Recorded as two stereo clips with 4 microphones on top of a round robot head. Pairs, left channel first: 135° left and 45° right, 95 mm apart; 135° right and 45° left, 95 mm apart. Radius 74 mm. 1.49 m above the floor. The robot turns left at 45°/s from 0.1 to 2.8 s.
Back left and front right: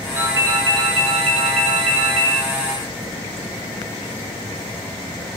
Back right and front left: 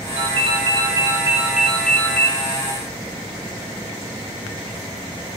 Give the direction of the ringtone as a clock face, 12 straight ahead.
11 o'clock.